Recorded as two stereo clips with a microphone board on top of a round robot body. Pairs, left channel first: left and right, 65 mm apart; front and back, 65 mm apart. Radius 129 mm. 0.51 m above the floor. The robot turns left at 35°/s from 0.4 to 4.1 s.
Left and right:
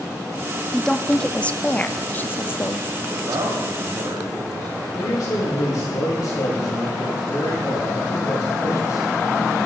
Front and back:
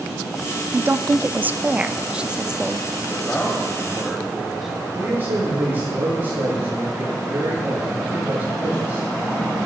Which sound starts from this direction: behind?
A woman speaking, at 0.7 s.